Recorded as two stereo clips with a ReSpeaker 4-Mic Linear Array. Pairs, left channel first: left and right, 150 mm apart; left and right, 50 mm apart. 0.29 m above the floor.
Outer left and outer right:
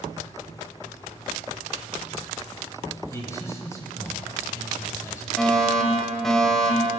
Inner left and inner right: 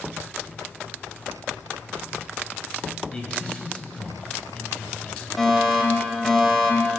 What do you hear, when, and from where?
3.1 s a man speaking: 20° left (ahead or behind), 1.4 m
5.4 s a fire alarm: 5° left (ahead or behind), 2 m